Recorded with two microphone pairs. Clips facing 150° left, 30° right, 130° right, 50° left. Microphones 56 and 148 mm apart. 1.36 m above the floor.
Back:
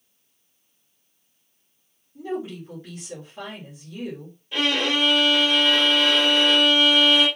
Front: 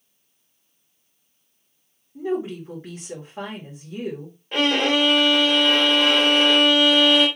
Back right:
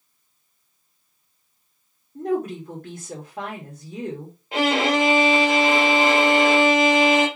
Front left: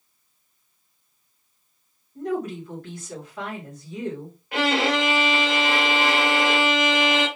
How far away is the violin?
About 2.5 m.